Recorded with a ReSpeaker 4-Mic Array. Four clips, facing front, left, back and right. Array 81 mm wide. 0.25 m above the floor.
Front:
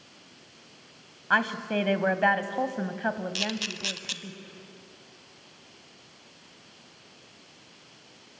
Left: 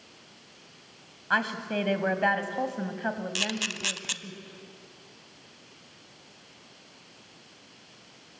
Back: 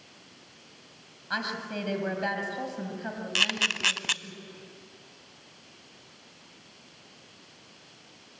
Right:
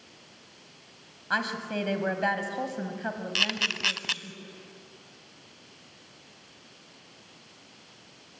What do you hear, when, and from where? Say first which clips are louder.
1.3 s a woman speaking: left 2 dB, front 7 dB; 15° left, 1.4 m
3.4 s a camera shutter: right 1 dB, back 2 dB; 155° right, 0.7 m